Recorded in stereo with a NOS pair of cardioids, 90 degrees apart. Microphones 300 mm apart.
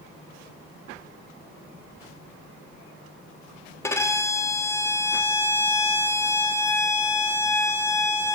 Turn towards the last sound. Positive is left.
turn(degrees=10)